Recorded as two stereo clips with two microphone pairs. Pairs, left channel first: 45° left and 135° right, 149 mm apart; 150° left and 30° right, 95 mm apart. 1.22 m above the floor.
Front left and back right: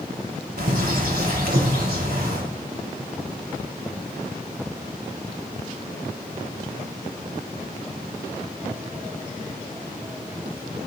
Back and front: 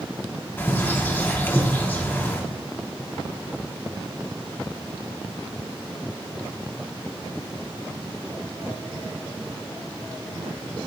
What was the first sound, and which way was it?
A bird, 140° right.